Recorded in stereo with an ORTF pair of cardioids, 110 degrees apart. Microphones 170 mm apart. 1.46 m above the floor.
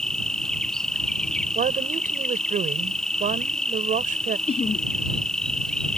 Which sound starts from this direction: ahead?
An insect, at 0.0 s.